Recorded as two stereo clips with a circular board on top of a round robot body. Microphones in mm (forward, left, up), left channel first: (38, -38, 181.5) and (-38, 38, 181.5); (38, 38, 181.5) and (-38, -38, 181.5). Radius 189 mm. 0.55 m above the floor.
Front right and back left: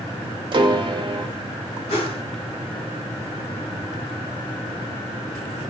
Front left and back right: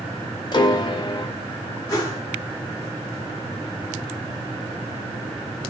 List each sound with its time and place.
0.5 s a piano: 90° left, 0.6 m
1.9 s a whoosh: 20° right, 0.8 m